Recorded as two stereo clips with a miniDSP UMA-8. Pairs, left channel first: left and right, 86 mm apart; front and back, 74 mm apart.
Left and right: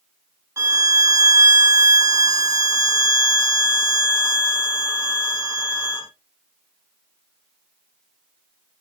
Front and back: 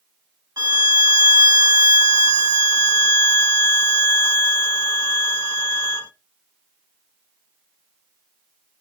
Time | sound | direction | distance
0.6 | a violin | 140° right | 0.9 m